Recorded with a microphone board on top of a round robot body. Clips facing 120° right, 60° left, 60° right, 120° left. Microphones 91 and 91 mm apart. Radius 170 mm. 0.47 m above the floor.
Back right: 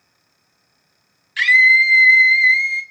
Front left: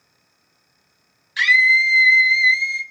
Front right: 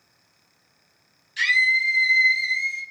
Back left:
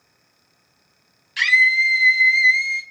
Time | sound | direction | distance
1.4 | a scream | 125° left | 3 m